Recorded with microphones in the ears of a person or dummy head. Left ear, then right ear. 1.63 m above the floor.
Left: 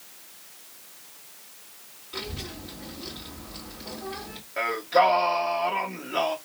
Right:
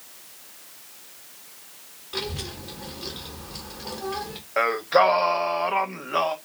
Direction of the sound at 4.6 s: 40° right (ahead or behind).